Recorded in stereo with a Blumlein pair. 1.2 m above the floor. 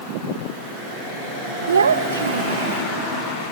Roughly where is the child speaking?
Right.